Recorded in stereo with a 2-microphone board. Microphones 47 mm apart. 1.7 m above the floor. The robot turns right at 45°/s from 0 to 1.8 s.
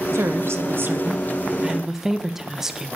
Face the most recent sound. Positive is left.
turn(degrees=-10)